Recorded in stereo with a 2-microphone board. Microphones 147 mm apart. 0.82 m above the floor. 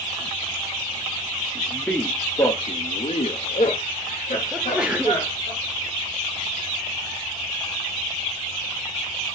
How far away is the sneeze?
About 0.8 m.